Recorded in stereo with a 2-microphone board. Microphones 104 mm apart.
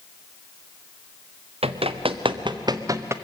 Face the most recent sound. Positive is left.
turn(degrees=-25)  # may be behind; listen again after turning